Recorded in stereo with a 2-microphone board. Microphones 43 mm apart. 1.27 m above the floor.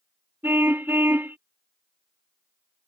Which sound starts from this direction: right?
A car horn, at 0.4 s.